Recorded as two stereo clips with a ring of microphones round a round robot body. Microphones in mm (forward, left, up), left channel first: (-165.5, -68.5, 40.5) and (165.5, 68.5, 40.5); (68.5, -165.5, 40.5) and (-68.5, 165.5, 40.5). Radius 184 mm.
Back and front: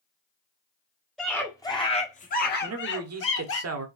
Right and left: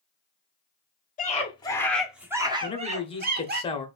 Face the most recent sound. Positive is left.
turn(degrees=0)